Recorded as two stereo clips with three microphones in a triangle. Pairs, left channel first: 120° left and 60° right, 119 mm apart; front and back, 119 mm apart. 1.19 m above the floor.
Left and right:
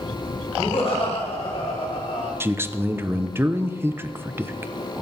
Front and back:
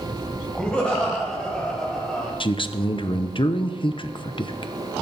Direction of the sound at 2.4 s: 5° left.